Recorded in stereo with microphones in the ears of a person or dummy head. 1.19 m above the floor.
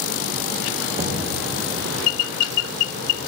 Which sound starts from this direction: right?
Knocking, at 0.9 s.